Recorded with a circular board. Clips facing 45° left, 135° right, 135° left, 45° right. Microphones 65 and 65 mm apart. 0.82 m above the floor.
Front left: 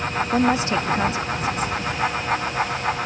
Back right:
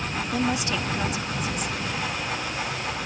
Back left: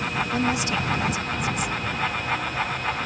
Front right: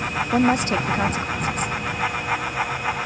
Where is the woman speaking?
5° right.